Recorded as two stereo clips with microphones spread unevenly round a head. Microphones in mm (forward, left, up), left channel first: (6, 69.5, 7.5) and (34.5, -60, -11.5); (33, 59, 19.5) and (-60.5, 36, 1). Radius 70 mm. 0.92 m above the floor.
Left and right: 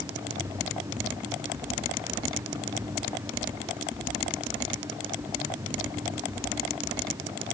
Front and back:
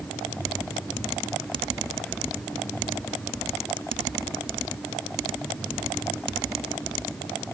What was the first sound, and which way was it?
Only background noise.